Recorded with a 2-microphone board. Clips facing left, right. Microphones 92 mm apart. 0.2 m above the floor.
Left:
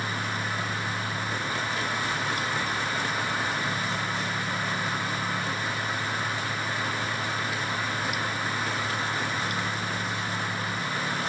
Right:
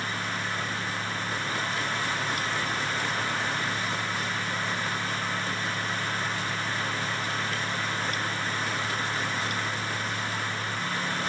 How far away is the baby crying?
I don't hear a baby crying.